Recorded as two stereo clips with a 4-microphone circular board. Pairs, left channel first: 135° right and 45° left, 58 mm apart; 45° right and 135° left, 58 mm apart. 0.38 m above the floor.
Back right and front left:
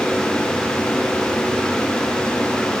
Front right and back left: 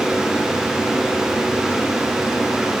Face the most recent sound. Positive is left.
No sound to turn to.